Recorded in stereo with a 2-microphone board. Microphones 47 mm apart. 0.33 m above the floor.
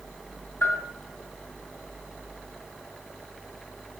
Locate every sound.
0.6 s a bell: 60° left (ahead or behind), 2 m